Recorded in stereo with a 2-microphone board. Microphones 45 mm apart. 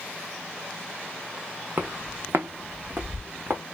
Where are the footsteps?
55° right (ahead or behind), 0.7 m.